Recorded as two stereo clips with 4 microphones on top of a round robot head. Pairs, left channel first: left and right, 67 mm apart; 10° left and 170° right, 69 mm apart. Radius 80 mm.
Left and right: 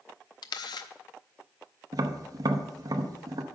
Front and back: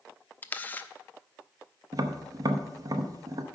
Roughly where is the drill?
I don't hear a drill.